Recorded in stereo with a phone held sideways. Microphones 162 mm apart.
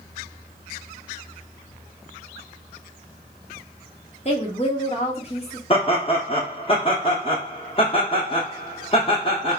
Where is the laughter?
35° left (ahead or behind), 0.5 m.